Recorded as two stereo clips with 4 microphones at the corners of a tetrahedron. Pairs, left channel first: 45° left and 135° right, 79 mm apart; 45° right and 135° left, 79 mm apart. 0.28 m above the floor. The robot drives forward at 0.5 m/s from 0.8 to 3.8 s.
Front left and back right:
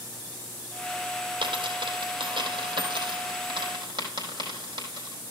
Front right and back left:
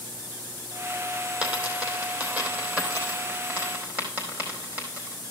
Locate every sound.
1.4 s a dropped coin: 155° right, 3 m; by 5.2 s 160° right, 4.5 m